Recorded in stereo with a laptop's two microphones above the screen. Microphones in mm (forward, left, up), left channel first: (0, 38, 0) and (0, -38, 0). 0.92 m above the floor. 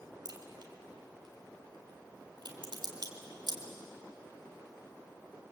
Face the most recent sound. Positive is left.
turn(degrees=-70)  # may be behind; listen again after turning